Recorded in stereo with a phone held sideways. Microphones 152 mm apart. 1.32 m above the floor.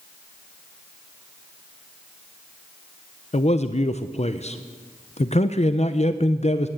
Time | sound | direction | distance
3.3 | a man speaking | 45° left (ahead or behind) | 0.5 m